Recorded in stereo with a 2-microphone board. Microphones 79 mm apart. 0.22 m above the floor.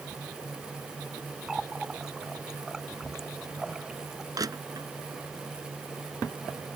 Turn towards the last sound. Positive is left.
turn(degrees=-50)  # may be behind; listen again after turning